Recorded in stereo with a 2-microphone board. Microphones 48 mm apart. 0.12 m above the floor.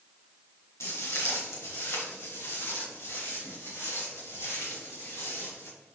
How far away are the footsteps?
About 3 m.